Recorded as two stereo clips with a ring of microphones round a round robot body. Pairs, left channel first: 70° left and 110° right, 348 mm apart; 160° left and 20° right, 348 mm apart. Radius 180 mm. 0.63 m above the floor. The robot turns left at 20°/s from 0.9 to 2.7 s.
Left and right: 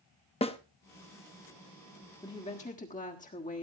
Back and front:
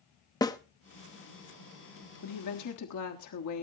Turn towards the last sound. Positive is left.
turn(degrees=130)